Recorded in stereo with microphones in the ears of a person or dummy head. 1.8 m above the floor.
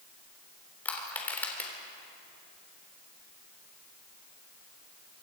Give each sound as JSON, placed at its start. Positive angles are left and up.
{"t": 0.8, "sound": "crushing", "side_deg": 10, "distance_m": 3.5}